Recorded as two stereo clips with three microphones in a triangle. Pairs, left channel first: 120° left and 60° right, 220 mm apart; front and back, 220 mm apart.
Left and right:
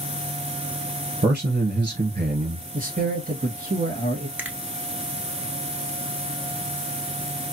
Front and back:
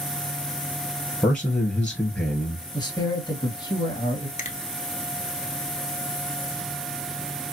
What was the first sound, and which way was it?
A man speaking, 80° right.